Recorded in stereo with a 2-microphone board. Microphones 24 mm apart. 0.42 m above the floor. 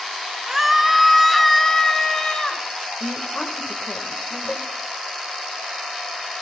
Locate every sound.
0.5 s a scream: 20° right (ahead or behind), 0.7 m; by 2.6 s 30° left (ahead or behind), 1.2 m
3.0 s a woman speaking: 40° left (ahead or behind), 1.6 m
4.5 s a cowbell: 70° left (ahead or behind), 1.4 m